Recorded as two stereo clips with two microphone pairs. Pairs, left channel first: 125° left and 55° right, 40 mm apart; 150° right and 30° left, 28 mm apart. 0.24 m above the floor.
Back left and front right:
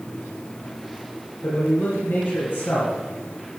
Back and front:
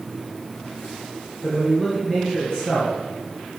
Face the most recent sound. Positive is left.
turn(degrees=145)